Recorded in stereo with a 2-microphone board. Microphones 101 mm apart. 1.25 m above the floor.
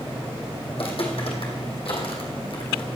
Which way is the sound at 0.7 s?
65° left (ahead or behind).